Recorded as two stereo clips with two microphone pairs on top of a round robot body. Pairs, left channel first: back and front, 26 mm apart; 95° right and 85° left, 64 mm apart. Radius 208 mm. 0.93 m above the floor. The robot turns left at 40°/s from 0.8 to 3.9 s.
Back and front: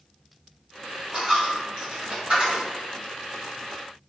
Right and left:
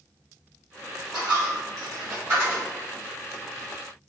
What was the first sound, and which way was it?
A dropped coin, 80° left.